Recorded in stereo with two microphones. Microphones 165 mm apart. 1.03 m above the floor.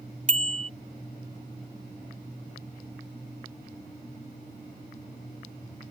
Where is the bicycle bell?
45° right (ahead or behind).